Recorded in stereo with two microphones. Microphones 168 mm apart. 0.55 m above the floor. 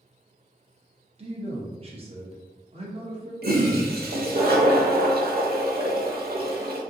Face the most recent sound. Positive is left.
turn(degrees=-75)  # may be behind; listen again after turning